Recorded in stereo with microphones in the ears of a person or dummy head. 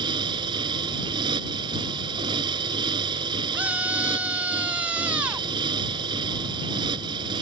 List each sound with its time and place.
0.0 s a motorcycle: 25° right (ahead or behind)
3.5 s a scream: 10° right (ahead or behind)